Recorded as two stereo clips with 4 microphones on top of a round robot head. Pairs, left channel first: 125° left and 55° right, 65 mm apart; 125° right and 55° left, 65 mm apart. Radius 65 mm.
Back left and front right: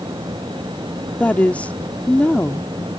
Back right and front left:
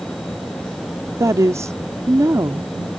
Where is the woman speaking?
65° left.